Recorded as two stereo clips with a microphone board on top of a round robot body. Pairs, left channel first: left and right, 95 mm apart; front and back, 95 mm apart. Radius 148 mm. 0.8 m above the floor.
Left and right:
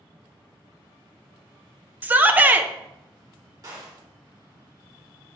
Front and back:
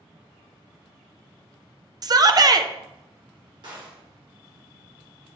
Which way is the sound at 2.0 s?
155° right.